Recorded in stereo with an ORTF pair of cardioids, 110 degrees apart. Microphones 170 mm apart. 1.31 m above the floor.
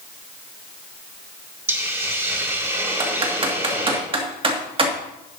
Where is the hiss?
15° right, 2 m.